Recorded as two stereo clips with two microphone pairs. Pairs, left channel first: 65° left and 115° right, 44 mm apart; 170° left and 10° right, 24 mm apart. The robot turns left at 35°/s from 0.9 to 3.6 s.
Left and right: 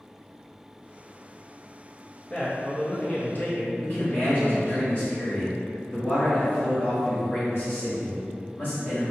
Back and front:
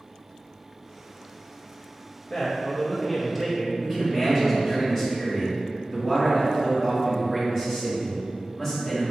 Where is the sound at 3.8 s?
95° left, 1.6 m.